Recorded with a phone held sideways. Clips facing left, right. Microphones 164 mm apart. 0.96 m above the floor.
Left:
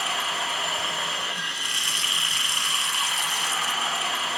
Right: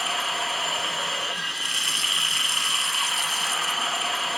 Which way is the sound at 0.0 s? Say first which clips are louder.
Right 1 dB; centre (ahead or behind).